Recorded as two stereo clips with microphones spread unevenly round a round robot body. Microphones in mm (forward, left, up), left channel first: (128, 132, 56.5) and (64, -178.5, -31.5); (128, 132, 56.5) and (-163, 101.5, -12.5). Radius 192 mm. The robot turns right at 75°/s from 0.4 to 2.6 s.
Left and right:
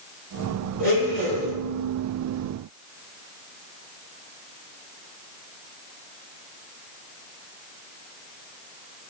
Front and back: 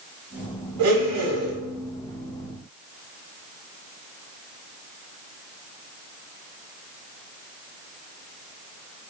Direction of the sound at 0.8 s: 175° left.